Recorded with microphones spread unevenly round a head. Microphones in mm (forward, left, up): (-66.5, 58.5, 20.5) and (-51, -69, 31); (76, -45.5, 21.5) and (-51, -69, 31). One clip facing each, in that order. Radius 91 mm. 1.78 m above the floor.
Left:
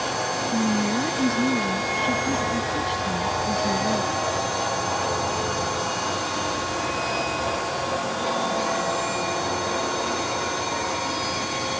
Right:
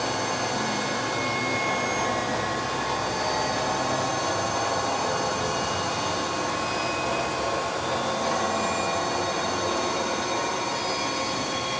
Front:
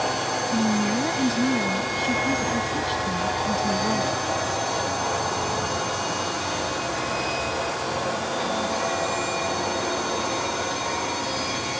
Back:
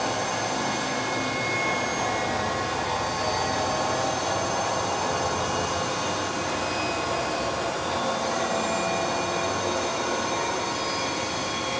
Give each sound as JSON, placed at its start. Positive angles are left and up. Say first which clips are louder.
{"t": 0.5, "sound": "a woman speaking", "louder": "left 5 dB, front 5 dB", "azimuth_deg": 45}